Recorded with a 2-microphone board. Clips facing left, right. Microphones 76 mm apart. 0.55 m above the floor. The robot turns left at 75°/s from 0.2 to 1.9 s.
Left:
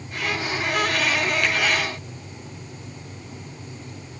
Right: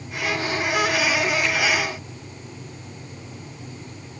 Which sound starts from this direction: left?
A finger snap, at 1.4 s.